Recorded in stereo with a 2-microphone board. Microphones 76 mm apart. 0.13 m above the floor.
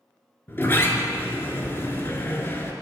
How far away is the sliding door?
About 0.6 m.